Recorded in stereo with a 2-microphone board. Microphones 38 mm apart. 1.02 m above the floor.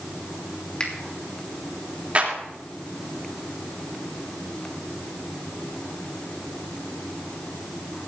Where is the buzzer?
I don't hear a buzzer.